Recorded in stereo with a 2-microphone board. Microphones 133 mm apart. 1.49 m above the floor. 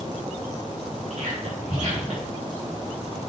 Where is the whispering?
70° right (ahead or behind), 4.5 m.